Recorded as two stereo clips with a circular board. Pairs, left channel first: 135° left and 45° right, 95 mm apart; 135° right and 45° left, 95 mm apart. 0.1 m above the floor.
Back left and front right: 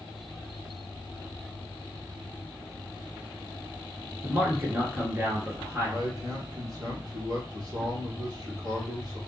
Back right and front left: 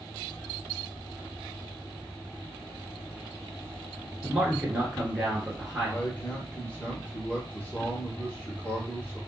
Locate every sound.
4.2 s a man speaking: 30° right, 1.4 m
5.8 s a man speaking: 65° right, 1.6 m